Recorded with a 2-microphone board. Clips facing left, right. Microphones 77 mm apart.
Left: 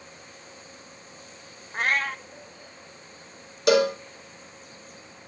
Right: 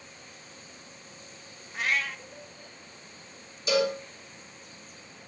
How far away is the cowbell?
About 2.5 m.